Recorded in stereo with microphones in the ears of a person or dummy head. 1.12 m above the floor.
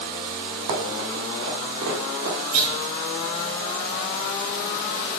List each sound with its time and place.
0.7 s running footsteps: 60° right (ahead or behind), 3 m; by 2.4 s 65° right (ahead or behind), 3 m
2.5 s a clunk: 90° right, 2.5 m